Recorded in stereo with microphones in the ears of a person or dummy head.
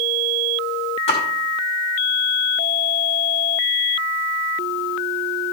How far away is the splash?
About 3 m.